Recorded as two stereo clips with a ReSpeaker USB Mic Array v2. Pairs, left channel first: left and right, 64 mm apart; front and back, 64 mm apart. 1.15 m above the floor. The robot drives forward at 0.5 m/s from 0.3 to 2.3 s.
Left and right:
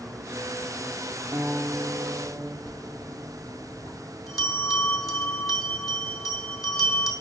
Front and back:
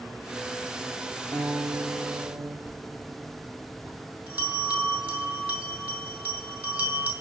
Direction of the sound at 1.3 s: 145° right.